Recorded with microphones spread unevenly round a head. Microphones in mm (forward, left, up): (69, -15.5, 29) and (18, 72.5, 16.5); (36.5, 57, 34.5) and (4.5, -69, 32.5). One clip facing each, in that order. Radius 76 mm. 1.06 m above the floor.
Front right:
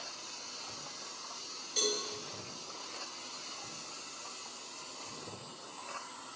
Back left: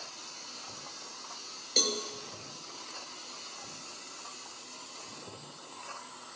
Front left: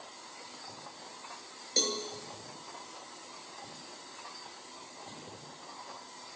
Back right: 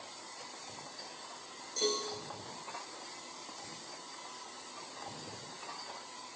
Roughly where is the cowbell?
Left.